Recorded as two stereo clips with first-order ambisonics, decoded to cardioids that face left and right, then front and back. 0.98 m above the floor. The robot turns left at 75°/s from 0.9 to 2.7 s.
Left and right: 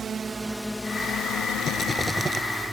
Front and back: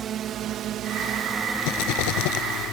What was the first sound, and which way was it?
A drone, 140° right.